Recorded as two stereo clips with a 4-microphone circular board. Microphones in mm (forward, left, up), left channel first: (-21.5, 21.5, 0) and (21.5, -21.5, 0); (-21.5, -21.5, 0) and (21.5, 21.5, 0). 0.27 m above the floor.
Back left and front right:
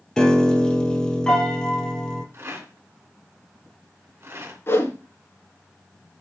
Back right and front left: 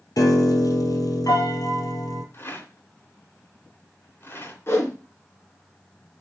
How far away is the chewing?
I don't hear chewing.